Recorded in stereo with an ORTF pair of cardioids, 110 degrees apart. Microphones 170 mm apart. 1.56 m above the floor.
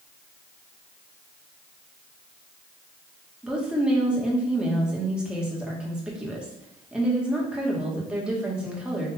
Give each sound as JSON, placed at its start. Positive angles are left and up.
{"t": 3.4, "sound": "a woman speaking", "azimuth_deg": -5, "distance_m": 1.6}